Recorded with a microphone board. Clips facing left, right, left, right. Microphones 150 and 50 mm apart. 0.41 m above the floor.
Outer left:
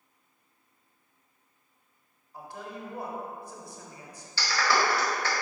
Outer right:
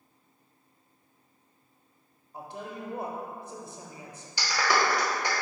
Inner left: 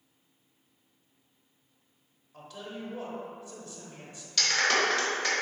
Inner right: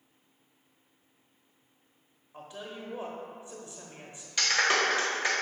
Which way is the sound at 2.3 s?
25° right (ahead or behind).